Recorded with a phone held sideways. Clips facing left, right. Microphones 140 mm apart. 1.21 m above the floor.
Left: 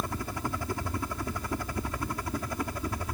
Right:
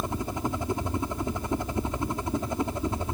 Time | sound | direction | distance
0.0 | a helicopter | 20° right (ahead or behind) | ?